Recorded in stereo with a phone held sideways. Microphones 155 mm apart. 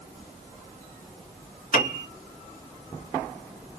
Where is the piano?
60° left (ahead or behind), 1.8 m.